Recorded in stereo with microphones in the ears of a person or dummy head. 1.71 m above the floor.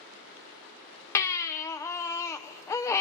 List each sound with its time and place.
1.1 s a baby crying: 20° left (ahead or behind), 0.7 m